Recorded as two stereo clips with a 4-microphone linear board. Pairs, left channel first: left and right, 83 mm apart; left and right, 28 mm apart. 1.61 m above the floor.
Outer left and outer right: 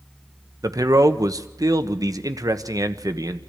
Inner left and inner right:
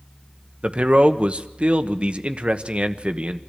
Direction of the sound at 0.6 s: 45° right (ahead or behind).